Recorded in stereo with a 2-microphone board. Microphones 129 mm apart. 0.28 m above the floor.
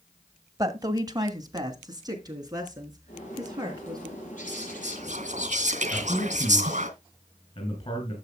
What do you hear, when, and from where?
0.6 s a woman speaking: 25° right (ahead or behind), 1.3 m
3.1 s a bird: 65° left (ahead or behind), 5.5 m
4.5 s whispering: 60° right (ahead or behind), 2.5 m
5.9 s a man speaking: 50° left (ahead or behind), 4 m